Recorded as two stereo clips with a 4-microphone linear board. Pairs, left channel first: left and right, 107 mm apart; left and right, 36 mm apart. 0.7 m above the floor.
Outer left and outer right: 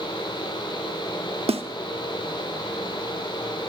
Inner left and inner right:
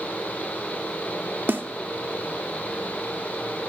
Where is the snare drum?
70° right (ahead or behind), 0.6 m.